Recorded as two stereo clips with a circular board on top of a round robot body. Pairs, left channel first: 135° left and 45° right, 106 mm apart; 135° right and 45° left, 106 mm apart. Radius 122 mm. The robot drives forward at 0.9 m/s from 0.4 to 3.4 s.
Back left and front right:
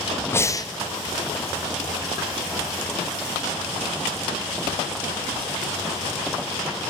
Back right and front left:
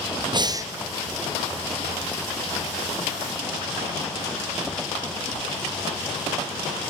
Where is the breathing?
75° left, 0.9 m; by 0.7 s 100° left, 0.9 m.